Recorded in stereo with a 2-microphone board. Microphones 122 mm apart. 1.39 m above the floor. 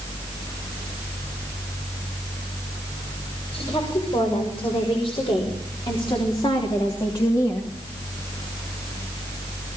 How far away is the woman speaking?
About 6 m.